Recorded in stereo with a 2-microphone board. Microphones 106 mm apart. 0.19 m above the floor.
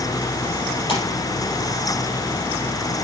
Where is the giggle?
I don't hear a giggle.